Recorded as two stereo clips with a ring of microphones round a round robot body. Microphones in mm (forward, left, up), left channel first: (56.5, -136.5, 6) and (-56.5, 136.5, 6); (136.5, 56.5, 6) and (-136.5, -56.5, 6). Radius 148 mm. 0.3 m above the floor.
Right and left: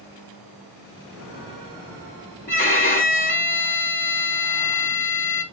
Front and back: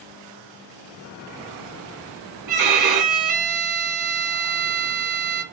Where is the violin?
130° right, 3 m.